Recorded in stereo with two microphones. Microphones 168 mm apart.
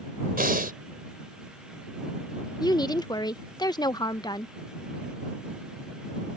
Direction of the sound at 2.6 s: 25° left (ahead or behind).